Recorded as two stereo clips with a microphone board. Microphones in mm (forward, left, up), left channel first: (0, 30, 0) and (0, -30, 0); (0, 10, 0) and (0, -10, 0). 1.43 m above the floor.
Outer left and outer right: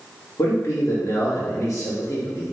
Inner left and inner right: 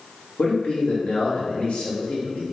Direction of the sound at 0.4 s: 70° left (ahead or behind).